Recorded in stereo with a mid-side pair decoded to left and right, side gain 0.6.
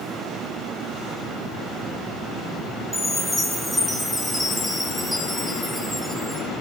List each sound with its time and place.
2.9 s a chime: 5° right, 2.5 m